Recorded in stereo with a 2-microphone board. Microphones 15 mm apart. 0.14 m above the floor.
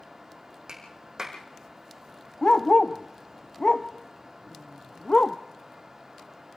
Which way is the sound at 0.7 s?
40° right (ahead or behind).